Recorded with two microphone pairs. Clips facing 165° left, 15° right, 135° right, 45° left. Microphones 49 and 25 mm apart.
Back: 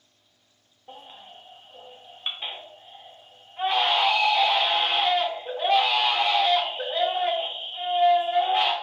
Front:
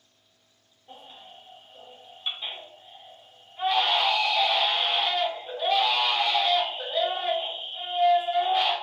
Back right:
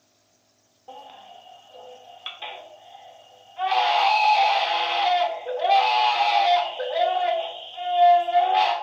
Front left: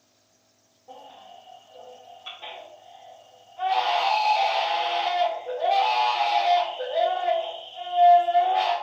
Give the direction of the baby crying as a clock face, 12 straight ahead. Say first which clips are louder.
Back 2 dB, back right 2 dB; 5 o'clock.